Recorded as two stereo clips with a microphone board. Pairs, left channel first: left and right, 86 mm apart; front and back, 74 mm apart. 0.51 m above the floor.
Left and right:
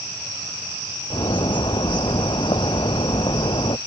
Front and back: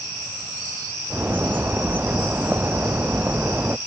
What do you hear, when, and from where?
1.1 s a bird: 115° left